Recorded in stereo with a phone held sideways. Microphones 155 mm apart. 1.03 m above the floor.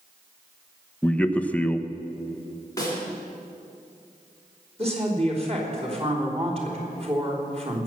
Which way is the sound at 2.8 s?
20° left (ahead or behind).